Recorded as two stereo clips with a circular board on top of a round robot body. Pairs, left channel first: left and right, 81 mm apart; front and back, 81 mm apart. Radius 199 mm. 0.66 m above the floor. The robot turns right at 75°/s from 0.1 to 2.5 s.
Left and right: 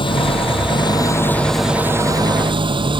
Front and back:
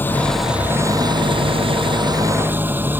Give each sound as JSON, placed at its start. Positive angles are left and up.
{"t": 0.0, "sound": "an engine running", "azimuth_deg": 70}